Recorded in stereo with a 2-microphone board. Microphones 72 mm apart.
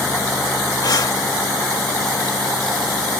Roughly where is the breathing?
Left.